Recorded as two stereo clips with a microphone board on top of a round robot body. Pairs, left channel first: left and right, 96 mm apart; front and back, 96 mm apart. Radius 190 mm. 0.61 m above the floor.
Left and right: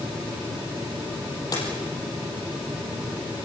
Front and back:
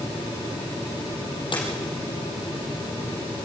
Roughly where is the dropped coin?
Ahead left.